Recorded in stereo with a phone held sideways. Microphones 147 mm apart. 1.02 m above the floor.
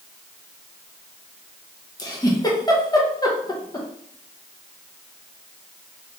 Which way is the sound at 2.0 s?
25° left (ahead or behind).